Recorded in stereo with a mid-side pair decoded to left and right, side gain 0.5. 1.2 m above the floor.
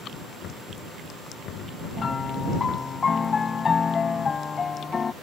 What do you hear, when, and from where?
0.4 s knocking: 65° left
2.0 s a piano: 35° left